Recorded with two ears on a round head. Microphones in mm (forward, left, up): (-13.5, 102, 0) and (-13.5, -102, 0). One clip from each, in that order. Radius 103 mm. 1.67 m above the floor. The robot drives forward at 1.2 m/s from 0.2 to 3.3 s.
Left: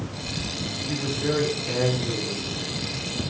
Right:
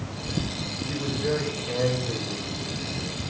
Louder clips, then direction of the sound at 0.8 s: Left 1 dB; 70° left (ahead or behind).